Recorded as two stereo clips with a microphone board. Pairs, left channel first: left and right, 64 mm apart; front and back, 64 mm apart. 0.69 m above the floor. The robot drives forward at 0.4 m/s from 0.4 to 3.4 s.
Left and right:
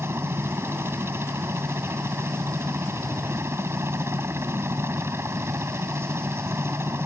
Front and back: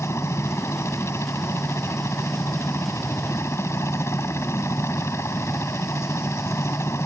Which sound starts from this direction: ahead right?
A helicopter, at 0.0 s.